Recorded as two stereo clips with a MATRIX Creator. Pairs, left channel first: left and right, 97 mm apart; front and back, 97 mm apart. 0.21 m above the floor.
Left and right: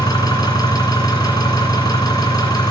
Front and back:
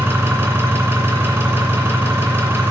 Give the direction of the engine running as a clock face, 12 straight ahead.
8 o'clock.